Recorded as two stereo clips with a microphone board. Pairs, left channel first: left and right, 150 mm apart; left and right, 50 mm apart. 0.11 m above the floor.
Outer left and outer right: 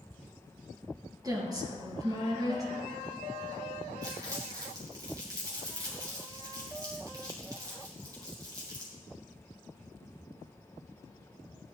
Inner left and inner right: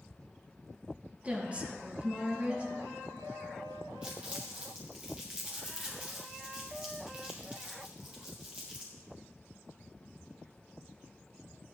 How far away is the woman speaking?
About 2.5 m.